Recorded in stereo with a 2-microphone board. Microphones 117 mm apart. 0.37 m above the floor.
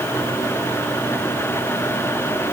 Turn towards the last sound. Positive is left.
No sound to turn to.